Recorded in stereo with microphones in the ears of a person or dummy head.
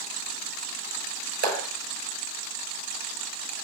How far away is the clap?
About 5 m.